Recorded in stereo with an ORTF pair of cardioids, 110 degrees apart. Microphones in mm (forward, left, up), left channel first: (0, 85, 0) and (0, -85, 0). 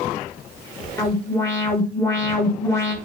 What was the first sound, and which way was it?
An alarm, 15° left.